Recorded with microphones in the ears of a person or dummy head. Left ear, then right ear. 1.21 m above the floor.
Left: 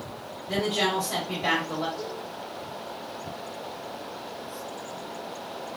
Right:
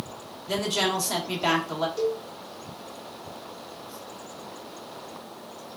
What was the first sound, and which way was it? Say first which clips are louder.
A woman speaking: even; 80° right.